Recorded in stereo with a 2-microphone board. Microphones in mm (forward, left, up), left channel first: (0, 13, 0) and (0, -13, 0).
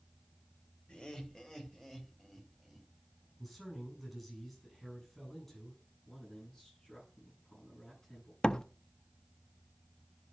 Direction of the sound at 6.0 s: 25° left (ahead or behind).